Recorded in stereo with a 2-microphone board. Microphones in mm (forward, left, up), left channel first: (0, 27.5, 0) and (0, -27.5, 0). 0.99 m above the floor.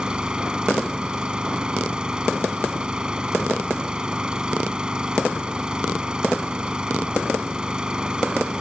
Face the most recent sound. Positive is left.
turn(degrees=-15)  # may be behind; listen again after turning